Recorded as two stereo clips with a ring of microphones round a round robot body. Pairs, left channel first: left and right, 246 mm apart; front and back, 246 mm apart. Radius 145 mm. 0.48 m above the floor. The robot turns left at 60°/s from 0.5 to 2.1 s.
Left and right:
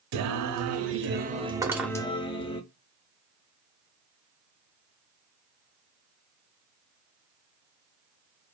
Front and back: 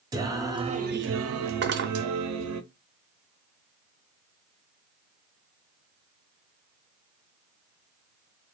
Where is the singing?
105° right, 0.5 m; by 2.6 s 160° left, 0.5 m.